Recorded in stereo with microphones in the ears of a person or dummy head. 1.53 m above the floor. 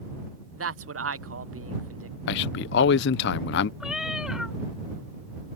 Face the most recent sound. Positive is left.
turn(degrees=-10)  # may be behind; listen again after turning